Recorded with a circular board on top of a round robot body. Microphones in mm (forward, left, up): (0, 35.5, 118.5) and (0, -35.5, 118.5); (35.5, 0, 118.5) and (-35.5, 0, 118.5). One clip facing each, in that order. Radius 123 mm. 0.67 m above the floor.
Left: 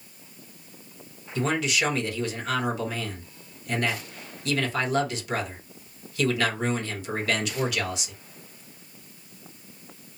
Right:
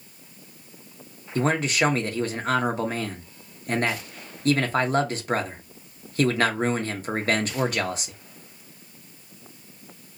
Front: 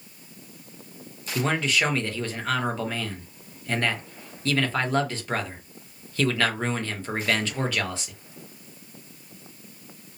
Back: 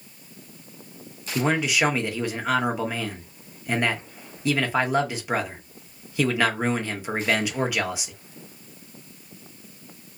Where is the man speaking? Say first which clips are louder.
Right 3 dB, back 2 dB; 110° right, 0.8 m.